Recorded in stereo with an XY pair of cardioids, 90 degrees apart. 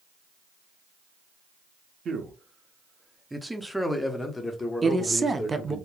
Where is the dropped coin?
I don't hear a dropped coin.